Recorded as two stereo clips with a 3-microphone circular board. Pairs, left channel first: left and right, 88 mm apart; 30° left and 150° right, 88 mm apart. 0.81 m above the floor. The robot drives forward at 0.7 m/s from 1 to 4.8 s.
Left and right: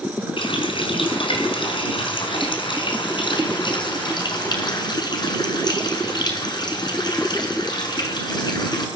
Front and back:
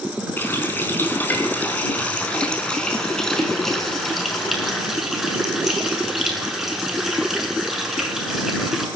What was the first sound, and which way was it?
A running tap, 100° left.